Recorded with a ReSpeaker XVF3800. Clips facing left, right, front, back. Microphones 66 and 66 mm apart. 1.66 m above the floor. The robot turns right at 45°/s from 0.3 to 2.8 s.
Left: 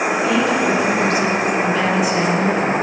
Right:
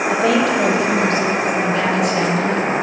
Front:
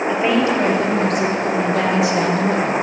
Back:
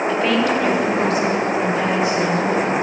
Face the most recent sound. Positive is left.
turn(degrees=40)